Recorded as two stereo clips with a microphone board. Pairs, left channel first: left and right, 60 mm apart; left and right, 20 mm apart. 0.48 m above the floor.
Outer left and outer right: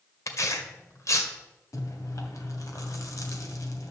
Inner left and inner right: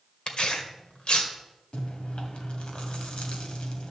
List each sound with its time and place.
0.3 s tearing paper: 55° left (ahead or behind), 1.7 m
1.7 s chewing: 65° left (ahead or behind), 2.0 m